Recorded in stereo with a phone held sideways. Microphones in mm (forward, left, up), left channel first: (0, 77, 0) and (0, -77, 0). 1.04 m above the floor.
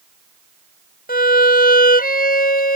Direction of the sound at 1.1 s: 80° left.